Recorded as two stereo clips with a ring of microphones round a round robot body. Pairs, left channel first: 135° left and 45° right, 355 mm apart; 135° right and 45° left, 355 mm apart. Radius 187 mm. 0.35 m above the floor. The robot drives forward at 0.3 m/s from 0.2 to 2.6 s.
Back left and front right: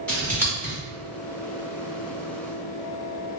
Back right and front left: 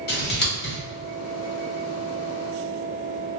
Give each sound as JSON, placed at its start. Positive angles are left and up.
{"t": 0.1, "sound": "scissors", "azimuth_deg": -145, "distance_m": 1.5}